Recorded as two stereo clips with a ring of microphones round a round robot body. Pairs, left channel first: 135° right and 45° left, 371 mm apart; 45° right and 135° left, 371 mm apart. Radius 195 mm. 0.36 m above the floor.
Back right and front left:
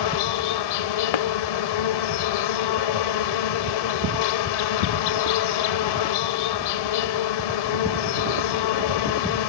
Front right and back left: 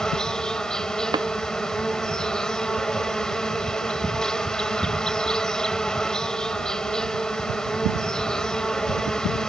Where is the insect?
135° right.